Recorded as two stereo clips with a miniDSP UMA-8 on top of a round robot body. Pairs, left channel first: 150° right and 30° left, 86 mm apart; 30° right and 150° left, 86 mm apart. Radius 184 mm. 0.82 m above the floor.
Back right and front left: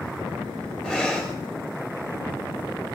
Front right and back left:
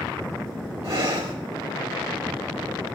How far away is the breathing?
About 3 m.